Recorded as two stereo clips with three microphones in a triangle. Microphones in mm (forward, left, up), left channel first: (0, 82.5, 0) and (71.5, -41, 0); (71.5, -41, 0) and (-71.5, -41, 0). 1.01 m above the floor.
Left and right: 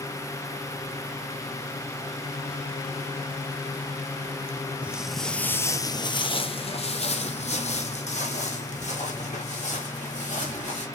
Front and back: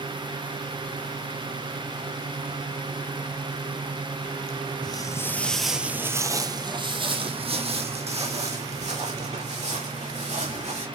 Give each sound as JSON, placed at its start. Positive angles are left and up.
{"t": 4.8, "sound": "footsteps", "azimuth_deg": 10, "distance_m": 1.1}